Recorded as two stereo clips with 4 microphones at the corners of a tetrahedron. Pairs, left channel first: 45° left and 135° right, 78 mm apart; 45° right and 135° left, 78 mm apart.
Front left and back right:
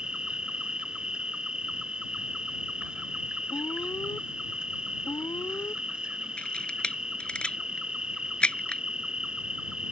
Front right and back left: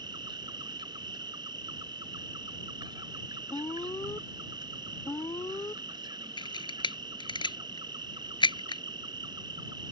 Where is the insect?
145° left.